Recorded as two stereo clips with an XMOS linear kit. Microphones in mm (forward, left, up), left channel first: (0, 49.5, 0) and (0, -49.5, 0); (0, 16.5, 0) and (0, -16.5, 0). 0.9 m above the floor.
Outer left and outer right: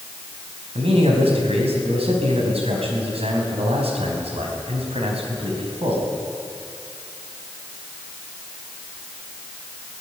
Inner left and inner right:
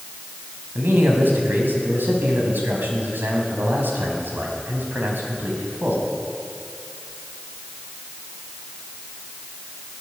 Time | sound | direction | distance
0.8 | a man speaking | 85° right | 5 m